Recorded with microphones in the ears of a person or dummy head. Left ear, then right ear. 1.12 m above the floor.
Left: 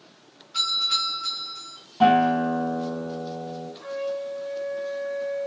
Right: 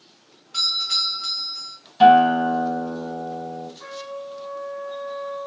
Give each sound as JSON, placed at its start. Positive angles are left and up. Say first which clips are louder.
{"t": 0.5, "sound": "a doorbell", "louder": "right 2 dB", "side_deg": -50, "distance_m": 3.5}
{"t": 2.0, "sound": "a guitar", "louder": "right 6 dB", "side_deg": -60, "distance_m": 4.5}
{"t": 3.8, "sound": "a trumpet", "louder": "left 4 dB", "side_deg": -40, "distance_m": 2.5}